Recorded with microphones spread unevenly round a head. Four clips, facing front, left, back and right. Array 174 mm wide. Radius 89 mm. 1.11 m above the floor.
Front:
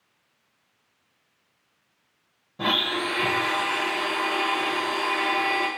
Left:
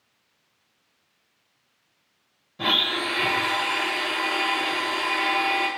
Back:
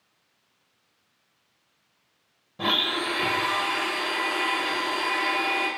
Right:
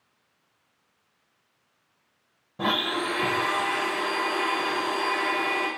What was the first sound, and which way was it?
A blender, 90° right.